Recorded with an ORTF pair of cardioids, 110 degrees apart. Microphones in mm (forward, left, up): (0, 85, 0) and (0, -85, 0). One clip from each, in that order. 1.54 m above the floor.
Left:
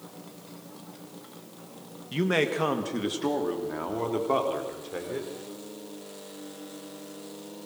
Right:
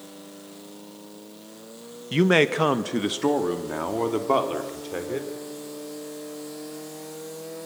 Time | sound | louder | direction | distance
2.1 | a man speaking | right 6 dB | 40° right | 1.4 m